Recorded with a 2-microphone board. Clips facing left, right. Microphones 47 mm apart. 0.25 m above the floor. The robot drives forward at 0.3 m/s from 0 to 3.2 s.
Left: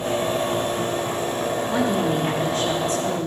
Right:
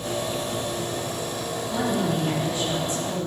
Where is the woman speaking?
60° left (ahead or behind), 4 m; by 3.3 s 65° left (ahead or behind), 4 m.